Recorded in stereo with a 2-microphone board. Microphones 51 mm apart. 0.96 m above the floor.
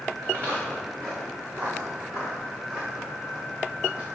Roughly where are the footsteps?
Right.